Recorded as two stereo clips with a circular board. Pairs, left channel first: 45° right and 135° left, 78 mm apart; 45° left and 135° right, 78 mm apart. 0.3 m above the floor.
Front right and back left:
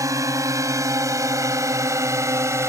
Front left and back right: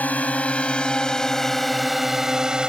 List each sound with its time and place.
0.0 s a drone: 105° left; by 2.7 s 150° left